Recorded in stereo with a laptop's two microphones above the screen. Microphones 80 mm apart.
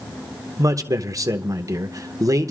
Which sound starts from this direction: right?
A man speaking, at 0.6 s.